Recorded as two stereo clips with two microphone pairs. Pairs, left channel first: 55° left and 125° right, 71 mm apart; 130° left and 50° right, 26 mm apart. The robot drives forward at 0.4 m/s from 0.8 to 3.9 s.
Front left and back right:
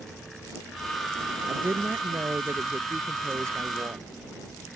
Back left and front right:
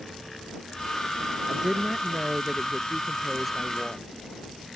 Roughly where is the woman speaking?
Right.